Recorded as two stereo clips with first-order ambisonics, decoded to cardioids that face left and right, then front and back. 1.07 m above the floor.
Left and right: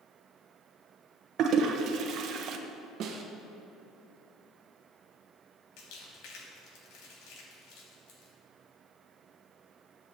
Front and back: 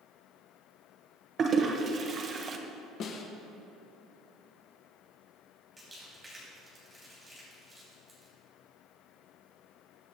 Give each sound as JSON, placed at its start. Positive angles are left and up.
{"t": 1.4, "sound": "a toilet flushing", "azimuth_deg": -125, "distance_m": 0.9}
{"t": 3.0, "sound": "a snare drum", "azimuth_deg": -45, "distance_m": 1.3}
{"t": 5.8, "sound": "crumpling", "azimuth_deg": 100, "distance_m": 3.5}